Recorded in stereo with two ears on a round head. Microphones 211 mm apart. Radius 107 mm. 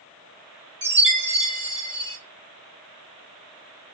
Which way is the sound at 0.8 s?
20° right (ahead or behind).